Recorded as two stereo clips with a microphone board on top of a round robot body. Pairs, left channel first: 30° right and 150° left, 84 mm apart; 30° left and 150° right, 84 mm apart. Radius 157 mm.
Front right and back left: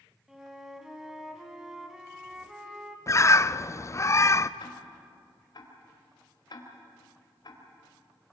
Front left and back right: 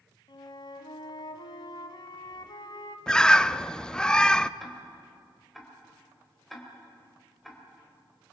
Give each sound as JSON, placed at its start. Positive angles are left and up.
{"t": 0.3, "sound": "a flute", "azimuth_deg": 65, "distance_m": 1.5}
{"t": 3.1, "sound": "a bird", "azimuth_deg": -45, "distance_m": 0.7}
{"t": 4.6, "sound": "ticking", "azimuth_deg": -60, "distance_m": 3.5}